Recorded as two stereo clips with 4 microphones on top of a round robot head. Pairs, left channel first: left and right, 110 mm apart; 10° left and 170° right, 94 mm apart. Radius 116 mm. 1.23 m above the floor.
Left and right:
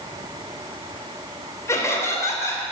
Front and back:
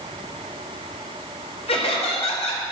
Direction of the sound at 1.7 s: 25° left.